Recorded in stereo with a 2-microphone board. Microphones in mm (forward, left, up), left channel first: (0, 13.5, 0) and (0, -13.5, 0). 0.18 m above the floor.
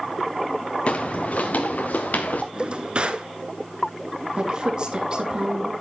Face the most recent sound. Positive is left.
turn(degrees=-30)  # may be behind; listen again after turning